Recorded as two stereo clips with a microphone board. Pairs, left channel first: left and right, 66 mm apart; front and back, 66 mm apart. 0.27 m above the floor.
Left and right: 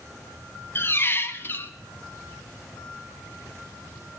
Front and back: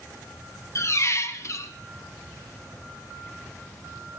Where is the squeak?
35° left, 1.0 m.